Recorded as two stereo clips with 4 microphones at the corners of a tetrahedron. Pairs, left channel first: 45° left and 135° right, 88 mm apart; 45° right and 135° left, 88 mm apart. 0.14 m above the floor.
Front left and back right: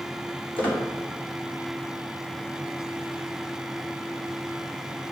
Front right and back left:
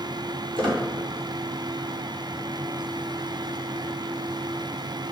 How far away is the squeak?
About 3 m.